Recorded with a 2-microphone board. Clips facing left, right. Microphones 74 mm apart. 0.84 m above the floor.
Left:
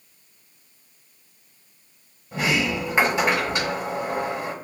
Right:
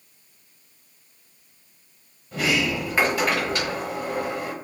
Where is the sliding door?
25° left (ahead or behind), 1.0 m.